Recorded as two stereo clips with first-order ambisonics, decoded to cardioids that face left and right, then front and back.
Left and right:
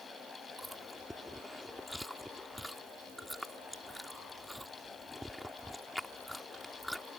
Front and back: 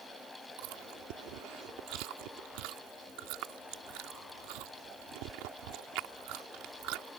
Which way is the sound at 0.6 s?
Straight behind.